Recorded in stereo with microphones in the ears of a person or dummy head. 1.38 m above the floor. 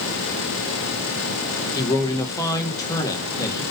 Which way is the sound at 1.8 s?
20° left (ahead or behind).